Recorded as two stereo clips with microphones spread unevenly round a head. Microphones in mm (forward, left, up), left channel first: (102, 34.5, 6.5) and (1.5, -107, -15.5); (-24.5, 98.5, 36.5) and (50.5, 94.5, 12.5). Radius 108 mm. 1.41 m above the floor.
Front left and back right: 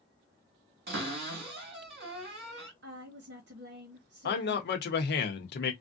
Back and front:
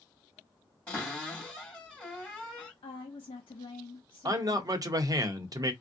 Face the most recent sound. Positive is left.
turn(degrees=30)